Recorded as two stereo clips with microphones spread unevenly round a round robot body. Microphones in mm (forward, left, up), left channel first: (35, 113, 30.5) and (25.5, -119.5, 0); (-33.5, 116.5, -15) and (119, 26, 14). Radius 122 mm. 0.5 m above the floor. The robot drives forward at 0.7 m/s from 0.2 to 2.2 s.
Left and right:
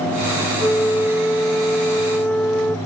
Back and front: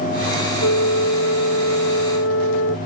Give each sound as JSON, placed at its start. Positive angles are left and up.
{"t": 0.6, "sound": "a flute", "azimuth_deg": 175}